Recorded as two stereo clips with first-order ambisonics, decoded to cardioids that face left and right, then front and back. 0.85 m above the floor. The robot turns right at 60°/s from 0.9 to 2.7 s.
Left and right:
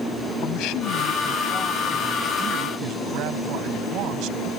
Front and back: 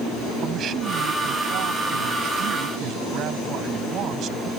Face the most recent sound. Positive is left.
turn(degrees=-130)